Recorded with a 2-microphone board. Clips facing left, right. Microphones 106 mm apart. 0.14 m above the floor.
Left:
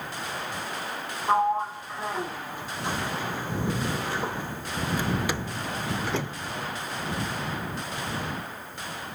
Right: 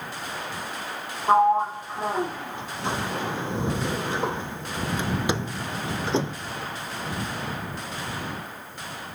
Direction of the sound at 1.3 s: 20° right (ahead or behind).